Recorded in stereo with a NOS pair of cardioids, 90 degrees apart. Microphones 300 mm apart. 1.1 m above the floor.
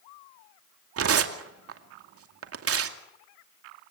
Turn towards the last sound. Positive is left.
turn(degrees=-50)